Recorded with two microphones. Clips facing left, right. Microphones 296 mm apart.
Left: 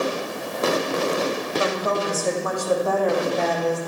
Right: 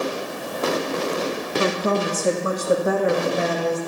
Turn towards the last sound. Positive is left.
turn(degrees=-5)  # may be behind; listen again after turning